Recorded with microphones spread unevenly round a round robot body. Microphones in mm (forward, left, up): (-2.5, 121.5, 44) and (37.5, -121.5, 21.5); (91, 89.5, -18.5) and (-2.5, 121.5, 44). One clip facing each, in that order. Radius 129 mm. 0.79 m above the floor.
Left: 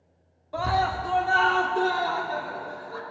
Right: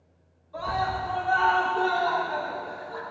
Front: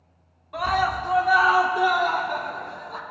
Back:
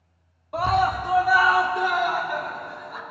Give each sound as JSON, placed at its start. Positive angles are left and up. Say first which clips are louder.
{"t": 0.5, "sound": "a scream", "louder": "left 3 dB, back 2 dB", "azimuth_deg": 100, "distance_m": 1.8}